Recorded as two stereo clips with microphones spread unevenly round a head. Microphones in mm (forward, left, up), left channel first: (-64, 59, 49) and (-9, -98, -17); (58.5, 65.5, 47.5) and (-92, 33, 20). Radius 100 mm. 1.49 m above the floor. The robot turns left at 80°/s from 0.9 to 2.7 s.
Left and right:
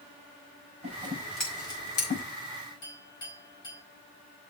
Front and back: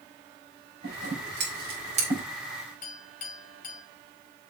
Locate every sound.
0.8 s scissors: 130° right, 5 m; by 2.2 s 125° left, 5 m
2.8 s a clink: 40° left, 5 m